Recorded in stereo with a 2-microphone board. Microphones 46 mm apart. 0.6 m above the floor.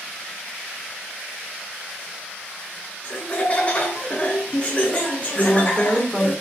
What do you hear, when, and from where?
3.0 s laughter: 30° left (ahead or behind), 0.7 m
5.3 s a woman speaking: 15° left (ahead or behind), 1.5 m